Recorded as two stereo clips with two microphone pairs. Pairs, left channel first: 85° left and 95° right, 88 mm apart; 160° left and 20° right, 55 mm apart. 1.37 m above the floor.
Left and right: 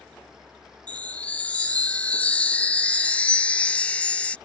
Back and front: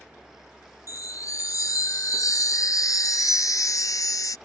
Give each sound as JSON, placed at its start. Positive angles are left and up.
{"t": 0.9, "sound": "a chime", "azimuth_deg": 160}